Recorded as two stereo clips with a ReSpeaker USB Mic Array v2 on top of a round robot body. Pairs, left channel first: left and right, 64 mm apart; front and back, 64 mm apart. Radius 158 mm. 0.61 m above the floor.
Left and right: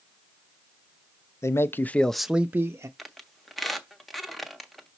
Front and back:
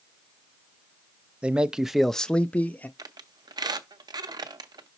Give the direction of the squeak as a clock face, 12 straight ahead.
6 o'clock.